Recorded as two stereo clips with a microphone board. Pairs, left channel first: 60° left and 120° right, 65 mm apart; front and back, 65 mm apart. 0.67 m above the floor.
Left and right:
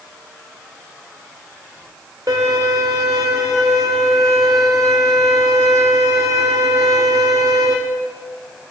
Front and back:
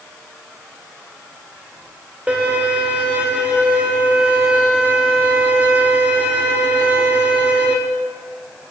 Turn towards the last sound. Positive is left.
turn(degrees=-110)